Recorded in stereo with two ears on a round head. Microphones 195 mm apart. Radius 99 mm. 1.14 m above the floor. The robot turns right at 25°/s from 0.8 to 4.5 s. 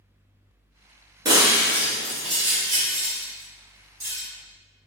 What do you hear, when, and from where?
1.2 s breaking glass: 20° right (ahead or behind), 1.4 m; by 4.2 s 45° right (ahead or behind), 1.4 m